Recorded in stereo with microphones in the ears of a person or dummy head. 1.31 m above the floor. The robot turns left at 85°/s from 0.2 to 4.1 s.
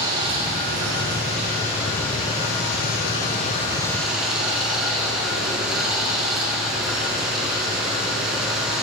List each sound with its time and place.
0.0 s running water: 30° right, 2 m; by 8.8 s 5° right, 2 m